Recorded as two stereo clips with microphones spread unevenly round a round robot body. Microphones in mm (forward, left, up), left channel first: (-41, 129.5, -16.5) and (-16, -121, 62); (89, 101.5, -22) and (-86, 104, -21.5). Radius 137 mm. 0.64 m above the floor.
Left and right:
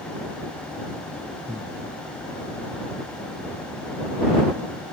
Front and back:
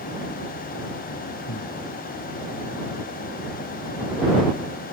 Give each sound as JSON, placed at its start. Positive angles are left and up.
{"t": 1.5, "sound": "breathing", "azimuth_deg": -10}